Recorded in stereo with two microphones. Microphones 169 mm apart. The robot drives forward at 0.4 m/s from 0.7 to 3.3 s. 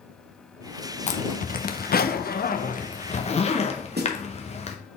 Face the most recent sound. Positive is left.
turn(degrees=-80)